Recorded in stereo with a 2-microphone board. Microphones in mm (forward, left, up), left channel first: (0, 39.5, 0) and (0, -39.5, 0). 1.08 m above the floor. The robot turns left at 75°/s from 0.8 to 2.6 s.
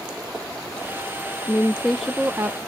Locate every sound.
1.5 s a woman speaking: 40° left, 0.6 m; by 2.6 s 45° right, 0.6 m